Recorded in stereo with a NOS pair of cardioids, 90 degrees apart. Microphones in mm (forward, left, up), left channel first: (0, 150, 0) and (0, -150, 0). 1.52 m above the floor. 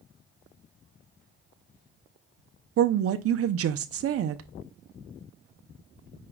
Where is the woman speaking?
50° right, 0.7 m.